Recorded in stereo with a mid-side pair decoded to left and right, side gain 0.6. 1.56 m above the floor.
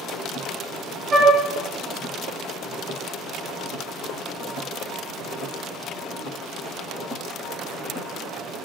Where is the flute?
30° right, 0.7 m.